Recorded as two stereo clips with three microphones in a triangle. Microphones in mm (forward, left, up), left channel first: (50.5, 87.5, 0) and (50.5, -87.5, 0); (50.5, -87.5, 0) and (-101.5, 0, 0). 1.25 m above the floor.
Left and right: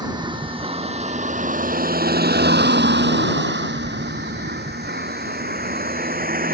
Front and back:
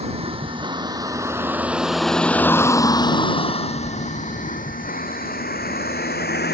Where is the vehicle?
155° right; by 6.5 s 55° right.